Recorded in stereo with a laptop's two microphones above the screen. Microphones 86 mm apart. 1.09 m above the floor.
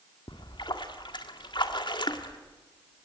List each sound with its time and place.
0.3 s a splash: 65° left (ahead or behind), 1.9 m